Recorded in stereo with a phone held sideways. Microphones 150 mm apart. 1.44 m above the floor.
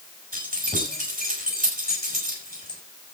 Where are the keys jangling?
75° right (ahead or behind), 6 m.